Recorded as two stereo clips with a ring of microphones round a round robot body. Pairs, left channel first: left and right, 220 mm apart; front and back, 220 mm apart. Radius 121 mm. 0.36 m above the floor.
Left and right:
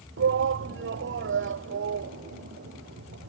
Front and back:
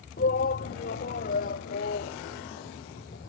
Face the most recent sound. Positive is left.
turn(degrees=-55)